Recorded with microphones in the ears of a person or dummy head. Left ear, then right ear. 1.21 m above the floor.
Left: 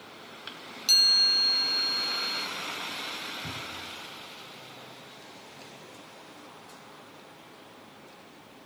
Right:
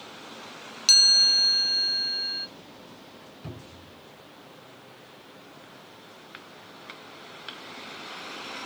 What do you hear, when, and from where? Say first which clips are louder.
0.9 s a chime: right 3 dB; 15° right (ahead or behind), 0.8 m
3.4 s a cupboard door: left 8 dB; 40° right (ahead or behind), 4 m